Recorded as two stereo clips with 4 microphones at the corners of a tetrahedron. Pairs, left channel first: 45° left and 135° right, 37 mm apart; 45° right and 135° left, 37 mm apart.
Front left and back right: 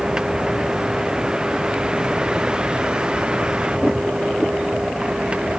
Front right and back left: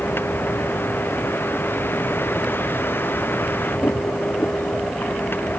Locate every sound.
0.0 s a vehicle: 60° right; by 5.6 s 70° right